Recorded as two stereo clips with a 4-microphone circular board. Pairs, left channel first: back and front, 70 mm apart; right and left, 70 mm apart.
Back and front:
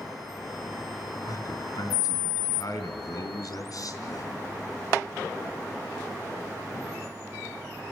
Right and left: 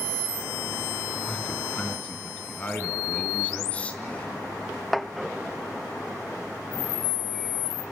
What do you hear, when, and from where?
1.3 s a man speaking: 160° right, 3.5 m